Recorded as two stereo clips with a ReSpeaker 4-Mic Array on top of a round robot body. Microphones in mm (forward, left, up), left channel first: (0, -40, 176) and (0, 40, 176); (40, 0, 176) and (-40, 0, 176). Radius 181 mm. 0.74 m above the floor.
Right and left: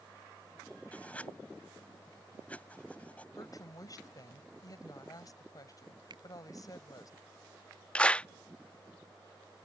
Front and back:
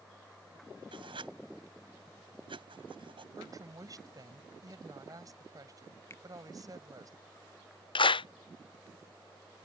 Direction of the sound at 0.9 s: 165° right.